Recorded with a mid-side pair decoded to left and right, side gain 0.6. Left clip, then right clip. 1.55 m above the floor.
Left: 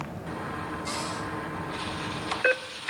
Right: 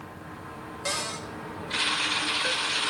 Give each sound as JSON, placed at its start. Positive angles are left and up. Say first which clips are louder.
{"t": 0.8, "sound": "a cupboard door", "louder": "right 5 dB", "azimuth_deg": -60, "distance_m": 3.0}